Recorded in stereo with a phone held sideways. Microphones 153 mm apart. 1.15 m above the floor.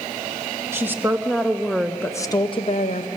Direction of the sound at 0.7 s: 15° right (ahead or behind).